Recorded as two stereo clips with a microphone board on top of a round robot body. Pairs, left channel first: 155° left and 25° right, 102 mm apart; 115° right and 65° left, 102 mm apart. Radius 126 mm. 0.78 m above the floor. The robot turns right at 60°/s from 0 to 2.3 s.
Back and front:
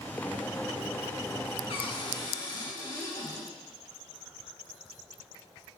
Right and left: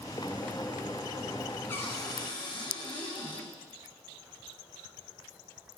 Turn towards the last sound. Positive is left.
turn(degrees=-145)